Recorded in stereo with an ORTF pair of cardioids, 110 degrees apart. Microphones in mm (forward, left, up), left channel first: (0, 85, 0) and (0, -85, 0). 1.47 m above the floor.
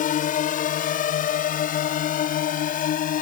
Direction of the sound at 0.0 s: 55° left.